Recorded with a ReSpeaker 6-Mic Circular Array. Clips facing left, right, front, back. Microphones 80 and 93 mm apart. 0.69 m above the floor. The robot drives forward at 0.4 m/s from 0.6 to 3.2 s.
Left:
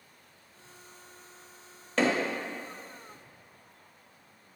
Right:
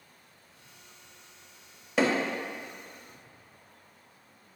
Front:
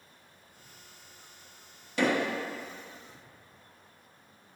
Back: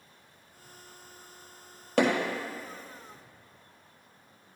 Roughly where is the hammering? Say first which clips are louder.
Right 1 dB, back 3 dB; behind.